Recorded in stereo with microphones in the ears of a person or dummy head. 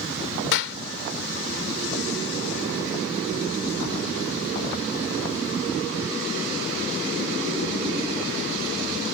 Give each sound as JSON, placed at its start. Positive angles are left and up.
{"t": 0.5, "sound": "a clap", "side_deg": 70}